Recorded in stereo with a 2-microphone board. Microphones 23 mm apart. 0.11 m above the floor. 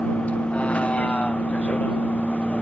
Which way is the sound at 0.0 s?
65° left (ahead or behind).